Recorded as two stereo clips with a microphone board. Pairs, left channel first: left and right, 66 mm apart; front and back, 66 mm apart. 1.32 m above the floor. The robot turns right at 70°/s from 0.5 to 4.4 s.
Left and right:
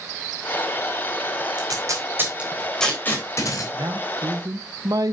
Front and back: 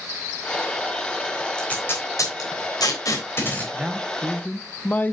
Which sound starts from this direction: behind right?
A man speaking, at 3.7 s.